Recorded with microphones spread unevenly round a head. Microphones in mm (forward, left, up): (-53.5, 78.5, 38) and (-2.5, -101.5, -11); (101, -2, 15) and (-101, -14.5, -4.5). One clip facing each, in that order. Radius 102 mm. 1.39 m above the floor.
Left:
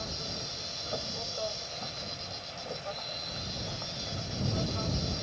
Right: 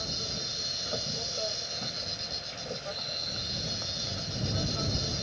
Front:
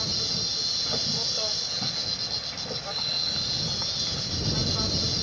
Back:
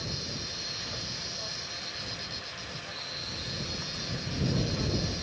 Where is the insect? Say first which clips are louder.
Right 1 dB, front 3 dB; 5° right.